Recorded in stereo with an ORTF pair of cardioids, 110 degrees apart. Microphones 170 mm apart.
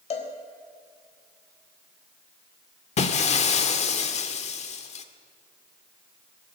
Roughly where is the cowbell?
Ahead left.